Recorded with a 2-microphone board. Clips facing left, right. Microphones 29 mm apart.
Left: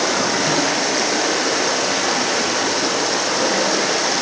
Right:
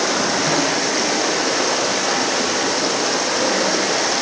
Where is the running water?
5° left (ahead or behind), 7 m.